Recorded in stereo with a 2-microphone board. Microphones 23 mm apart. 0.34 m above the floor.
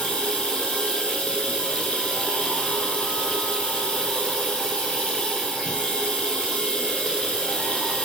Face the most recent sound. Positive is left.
turn(degrees=60)  # may be behind; listen again after turning